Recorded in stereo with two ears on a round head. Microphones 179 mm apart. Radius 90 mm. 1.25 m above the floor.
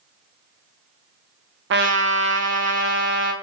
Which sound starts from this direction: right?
A trumpet, at 1.7 s.